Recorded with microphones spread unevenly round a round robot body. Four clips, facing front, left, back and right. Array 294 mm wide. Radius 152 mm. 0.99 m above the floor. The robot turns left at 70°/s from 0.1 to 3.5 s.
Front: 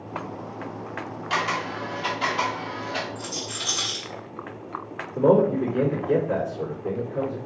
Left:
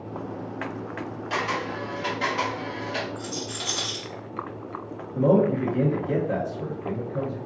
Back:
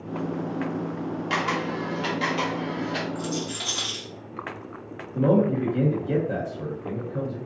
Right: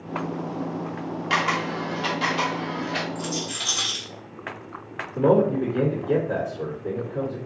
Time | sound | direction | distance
1.3 | a camera shutter | 95° right | 0.9 m
3.1 | a rattle | 165° right | 1.6 m
5.2 | a man speaking | 150° left | 1.6 m